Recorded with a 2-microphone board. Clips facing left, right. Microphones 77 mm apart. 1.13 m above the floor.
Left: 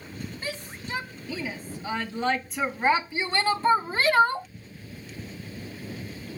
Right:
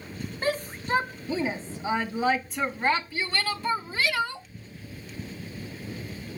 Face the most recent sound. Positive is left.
turn(degrees=50)  # may be behind; listen again after turning